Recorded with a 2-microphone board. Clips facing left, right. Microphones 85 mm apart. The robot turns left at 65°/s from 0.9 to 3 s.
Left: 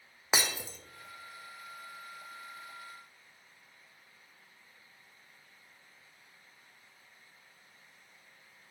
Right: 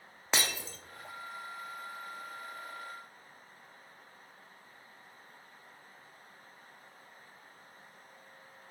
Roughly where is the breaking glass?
Centre.